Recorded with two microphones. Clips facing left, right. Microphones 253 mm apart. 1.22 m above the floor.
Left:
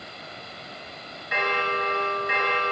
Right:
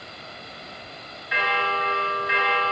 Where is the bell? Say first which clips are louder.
Left 1 dB; 50° left (ahead or behind), 1.2 m.